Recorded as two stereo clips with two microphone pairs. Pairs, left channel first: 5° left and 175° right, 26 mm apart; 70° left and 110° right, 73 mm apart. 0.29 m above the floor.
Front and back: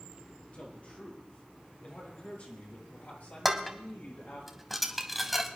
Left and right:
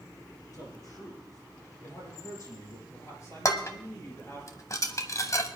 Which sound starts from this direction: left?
Dishes clattering, at 3.5 s.